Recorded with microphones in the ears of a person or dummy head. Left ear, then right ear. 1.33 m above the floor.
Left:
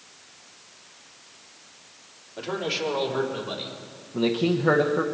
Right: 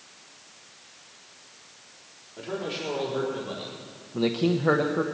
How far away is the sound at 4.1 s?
About 0.8 m.